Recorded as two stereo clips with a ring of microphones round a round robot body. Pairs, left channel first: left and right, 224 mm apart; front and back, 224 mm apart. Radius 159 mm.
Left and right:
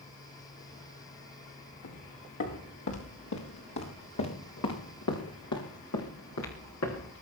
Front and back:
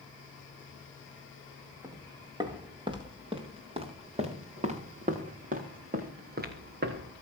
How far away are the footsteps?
About 6.5 m.